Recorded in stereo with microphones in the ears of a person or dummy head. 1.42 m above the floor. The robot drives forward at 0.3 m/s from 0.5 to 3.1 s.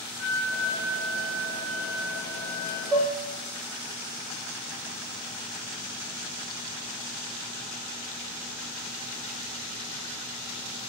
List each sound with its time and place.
0.2 s a flute: 10° left (ahead or behind), 2.5 m
2.9 s dishes clattering: 5° left (ahead or behind), 1.0 m